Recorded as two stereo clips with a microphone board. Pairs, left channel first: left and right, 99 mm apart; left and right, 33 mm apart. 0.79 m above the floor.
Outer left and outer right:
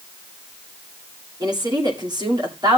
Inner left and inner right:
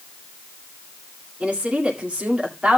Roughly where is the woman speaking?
Right.